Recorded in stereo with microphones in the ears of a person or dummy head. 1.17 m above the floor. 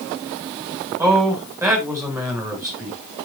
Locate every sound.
1.0 s a man speaking: 20° right (ahead or behind), 4.5 m